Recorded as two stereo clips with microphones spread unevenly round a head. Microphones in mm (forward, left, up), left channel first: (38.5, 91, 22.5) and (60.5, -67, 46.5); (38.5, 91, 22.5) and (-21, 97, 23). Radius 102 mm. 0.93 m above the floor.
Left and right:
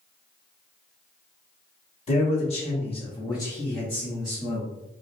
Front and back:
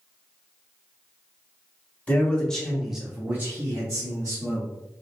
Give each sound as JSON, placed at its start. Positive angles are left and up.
{"t": 2.1, "sound": "a man speaking", "azimuth_deg": 60, "distance_m": 1.3}